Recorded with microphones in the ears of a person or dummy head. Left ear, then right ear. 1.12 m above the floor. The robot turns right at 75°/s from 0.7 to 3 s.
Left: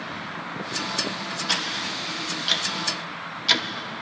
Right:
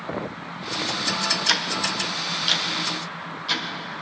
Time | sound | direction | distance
1.5 | ticking | 75° right (ahead or behind) | 1.1 m